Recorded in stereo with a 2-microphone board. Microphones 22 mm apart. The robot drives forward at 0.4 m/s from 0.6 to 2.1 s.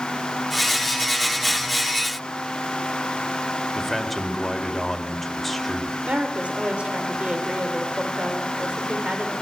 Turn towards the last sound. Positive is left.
turn(degrees=-85)